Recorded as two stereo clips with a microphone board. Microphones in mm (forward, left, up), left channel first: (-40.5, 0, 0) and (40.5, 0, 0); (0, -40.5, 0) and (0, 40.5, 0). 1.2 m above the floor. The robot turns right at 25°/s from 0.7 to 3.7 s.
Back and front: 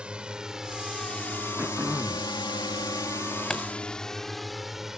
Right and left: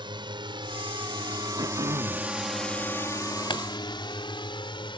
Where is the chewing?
95° right.